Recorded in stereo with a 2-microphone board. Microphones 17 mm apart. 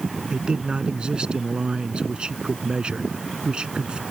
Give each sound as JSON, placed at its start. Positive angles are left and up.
{"t": 0.3, "sound": "a man speaking", "side_deg": -60}